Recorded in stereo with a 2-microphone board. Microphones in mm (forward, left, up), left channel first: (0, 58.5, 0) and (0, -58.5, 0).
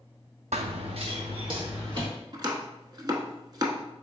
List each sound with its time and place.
0.5 s running footsteps: 85° right, 0.5 m; by 2.1 s 45° right (ahead or behind), 2.5 m
2.3 s chopping: 40° right (ahead or behind), 0.7 m